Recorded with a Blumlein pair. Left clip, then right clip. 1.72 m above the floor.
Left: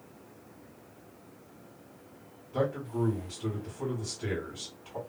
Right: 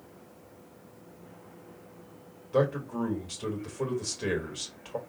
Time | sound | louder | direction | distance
2.5 | a man speaking | right 4 dB | 55° right | 2.5 m